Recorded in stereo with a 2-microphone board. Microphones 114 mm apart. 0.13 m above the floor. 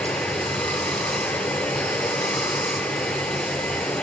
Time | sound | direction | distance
0.0 | running water | 10° left (ahead or behind) | 0.8 m